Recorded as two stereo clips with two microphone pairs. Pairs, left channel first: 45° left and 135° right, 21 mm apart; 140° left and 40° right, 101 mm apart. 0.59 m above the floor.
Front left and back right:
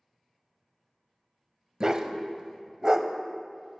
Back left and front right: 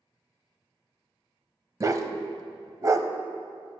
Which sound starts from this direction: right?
A dog barking, at 1.8 s.